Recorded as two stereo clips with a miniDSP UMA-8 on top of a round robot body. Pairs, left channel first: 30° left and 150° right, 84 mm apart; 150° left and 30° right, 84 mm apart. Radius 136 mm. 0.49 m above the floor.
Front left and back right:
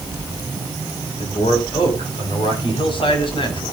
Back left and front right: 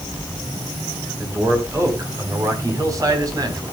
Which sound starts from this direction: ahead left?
A man speaking, at 1.2 s.